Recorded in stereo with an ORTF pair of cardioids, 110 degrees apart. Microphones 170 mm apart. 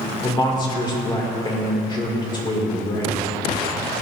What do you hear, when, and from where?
0.2 s a man speaking: 25° left, 2 m